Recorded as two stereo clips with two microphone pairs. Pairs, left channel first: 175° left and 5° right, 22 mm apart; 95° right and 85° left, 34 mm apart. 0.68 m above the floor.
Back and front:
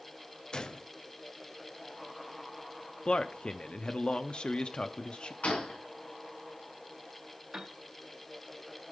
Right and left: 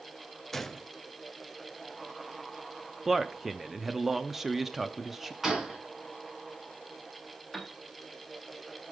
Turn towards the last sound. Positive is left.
turn(degrees=-10)